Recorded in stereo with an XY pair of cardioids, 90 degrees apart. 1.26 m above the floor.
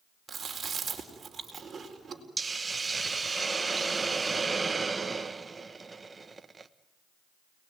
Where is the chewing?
40° right, 4 m.